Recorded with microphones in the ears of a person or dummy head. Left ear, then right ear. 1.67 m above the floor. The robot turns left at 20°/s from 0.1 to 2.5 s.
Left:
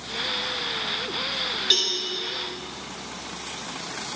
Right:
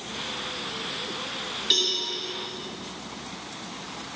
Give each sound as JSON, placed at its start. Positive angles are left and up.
{"t": 1.7, "sound": "a cowbell", "side_deg": 20, "distance_m": 2.0}